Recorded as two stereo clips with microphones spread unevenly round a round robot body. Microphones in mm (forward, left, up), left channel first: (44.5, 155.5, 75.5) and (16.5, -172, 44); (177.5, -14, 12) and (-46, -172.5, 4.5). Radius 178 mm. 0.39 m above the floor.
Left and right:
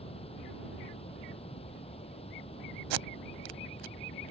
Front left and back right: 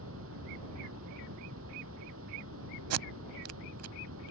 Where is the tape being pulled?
110° right.